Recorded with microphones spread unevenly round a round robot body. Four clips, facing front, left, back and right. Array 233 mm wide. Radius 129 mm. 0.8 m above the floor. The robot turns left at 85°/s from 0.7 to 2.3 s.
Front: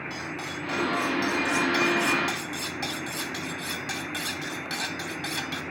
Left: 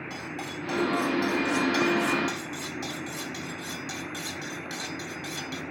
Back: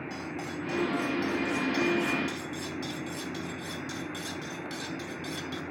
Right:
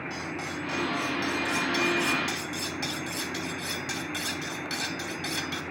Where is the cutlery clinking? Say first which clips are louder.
Even, front 1 dB; 130° left, 2.5 m; by 5.6 s 10° right, 2.5 m.